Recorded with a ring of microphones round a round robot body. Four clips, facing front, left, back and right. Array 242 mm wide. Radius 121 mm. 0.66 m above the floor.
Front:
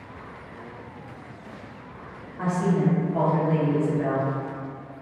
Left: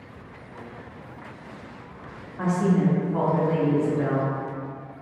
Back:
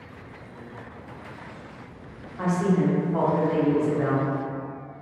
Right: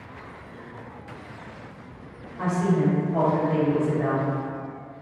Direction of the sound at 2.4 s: 145° left.